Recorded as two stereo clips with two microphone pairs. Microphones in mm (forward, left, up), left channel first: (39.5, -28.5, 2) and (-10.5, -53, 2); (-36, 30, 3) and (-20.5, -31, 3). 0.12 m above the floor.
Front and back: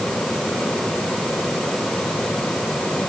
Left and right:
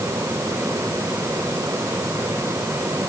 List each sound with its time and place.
Only background noise.